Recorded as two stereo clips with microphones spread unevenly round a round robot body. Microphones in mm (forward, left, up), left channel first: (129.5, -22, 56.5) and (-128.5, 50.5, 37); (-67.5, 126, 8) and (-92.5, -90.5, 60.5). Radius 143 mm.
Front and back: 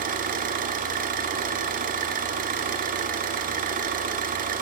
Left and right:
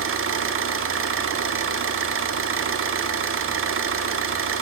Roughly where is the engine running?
Behind right.